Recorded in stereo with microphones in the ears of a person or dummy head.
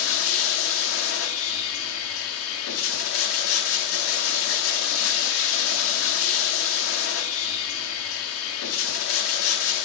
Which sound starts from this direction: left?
Running water, at 0.0 s.